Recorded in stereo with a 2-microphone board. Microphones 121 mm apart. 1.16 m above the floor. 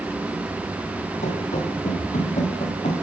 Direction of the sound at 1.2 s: 70° left (ahead or behind).